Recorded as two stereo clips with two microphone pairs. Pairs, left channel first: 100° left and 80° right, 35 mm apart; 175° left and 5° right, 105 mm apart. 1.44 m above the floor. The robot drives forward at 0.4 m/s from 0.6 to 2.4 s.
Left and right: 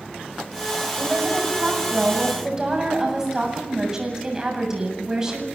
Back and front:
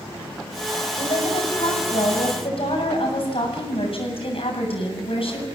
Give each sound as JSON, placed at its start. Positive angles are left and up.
{"t": 1.0, "sound": "a woman speaking", "azimuth_deg": -155, "distance_m": 7.0}